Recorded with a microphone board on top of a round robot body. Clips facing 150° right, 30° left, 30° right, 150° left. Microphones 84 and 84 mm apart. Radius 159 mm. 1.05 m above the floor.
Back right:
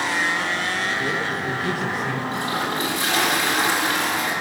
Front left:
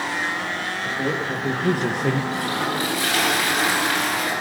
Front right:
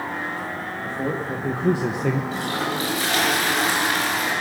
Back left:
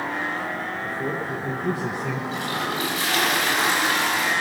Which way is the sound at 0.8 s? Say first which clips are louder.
Even, front right 4 dB; 20° right.